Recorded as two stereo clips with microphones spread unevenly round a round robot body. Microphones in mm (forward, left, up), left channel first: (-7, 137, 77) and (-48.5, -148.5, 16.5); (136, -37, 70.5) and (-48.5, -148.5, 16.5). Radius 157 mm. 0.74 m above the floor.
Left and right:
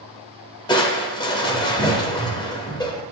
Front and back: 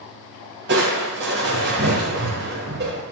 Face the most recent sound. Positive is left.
turn(degrees=155)